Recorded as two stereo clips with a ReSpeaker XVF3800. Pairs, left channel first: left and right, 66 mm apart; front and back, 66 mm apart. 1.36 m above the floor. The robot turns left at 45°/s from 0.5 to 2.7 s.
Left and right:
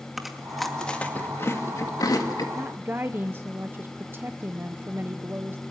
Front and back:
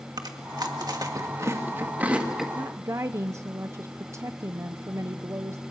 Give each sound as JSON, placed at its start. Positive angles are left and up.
{"t": 0.2, "sound": "chewing", "azimuth_deg": -175, "distance_m": 2.0}
{"t": 2.5, "sound": "a woman speaking", "azimuth_deg": -135, "distance_m": 0.8}